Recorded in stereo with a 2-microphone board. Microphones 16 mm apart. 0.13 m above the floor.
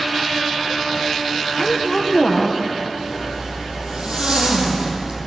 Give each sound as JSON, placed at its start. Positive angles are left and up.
{"t": 1.6, "sound": "a woman speaking", "side_deg": 10, "distance_m": 3.0}
{"t": 3.0, "sound": "a zipper", "side_deg": -70, "distance_m": 5.5}